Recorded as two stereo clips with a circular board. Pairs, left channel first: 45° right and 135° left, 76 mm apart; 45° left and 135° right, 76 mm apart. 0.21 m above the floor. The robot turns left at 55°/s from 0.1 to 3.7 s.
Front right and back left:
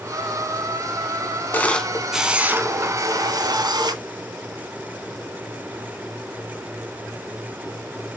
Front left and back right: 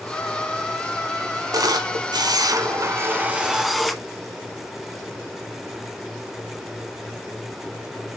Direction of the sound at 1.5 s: 105° right.